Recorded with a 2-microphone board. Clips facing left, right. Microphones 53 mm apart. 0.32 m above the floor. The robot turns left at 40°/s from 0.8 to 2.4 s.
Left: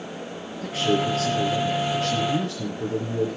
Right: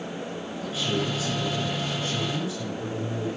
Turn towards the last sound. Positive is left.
turn(degrees=70)